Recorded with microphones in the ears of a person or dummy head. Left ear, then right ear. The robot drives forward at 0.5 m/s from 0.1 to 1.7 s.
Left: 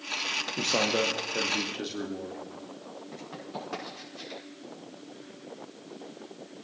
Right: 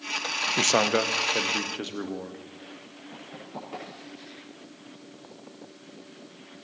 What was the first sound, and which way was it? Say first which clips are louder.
A man speaking: right 4 dB; 55° right (ahead or behind).